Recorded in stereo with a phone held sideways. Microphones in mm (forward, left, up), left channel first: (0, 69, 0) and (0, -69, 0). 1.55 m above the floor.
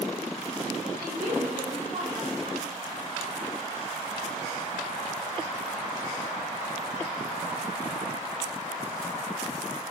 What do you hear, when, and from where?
1.0 s a woman speaking: 80° right, 2 m; by 2.7 s 40° right (ahead or behind), 3 m